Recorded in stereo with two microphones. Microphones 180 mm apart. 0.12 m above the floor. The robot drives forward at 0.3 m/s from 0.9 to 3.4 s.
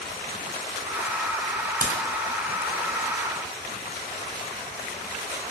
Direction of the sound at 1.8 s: 60° right (ahead or behind).